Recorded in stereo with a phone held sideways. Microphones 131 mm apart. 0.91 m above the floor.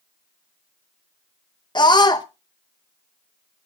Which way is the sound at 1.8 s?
35° left (ahead or behind).